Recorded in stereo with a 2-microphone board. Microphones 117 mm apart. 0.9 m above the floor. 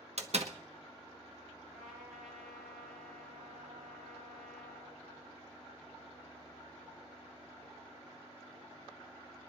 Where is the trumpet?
Centre (ahead or behind), 7.5 m.